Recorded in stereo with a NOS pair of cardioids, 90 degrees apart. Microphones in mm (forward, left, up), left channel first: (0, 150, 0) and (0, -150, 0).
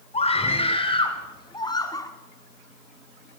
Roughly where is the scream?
Ahead.